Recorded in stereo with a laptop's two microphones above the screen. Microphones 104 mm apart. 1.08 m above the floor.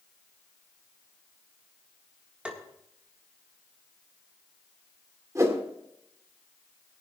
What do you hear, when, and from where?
2.5 s tapping: 10° right (ahead or behind), 1.5 m
5.3 s a whoosh: 30° right (ahead or behind), 1.9 m